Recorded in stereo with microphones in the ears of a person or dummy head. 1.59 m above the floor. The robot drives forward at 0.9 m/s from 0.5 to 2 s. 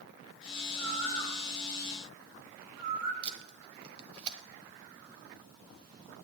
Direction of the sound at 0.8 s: 80° right.